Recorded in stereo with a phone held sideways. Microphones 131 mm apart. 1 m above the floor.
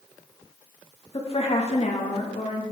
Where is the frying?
I don't hear frying.